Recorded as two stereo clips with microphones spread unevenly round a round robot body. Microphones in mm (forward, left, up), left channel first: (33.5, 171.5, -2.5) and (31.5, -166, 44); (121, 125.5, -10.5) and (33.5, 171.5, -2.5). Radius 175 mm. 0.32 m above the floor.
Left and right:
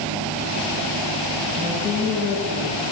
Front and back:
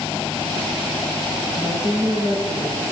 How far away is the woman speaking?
About 5 m.